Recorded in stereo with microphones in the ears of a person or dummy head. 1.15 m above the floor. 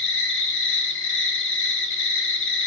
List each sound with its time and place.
0.0 s an insect: 65° left (ahead or behind), 0.9 m